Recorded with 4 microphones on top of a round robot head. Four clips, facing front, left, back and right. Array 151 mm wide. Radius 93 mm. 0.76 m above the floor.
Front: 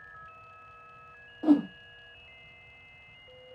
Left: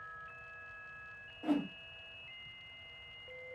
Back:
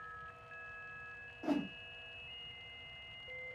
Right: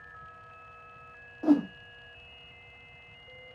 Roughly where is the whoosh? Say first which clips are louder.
Right 10 dB, front 13 dB; ahead right.